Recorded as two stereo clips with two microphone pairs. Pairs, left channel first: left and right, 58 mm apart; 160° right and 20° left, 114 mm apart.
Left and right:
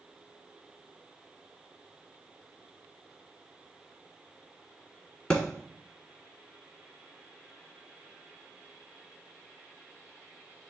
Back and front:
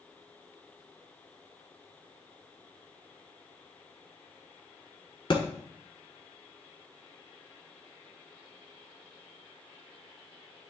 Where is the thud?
160° left, 1.3 m.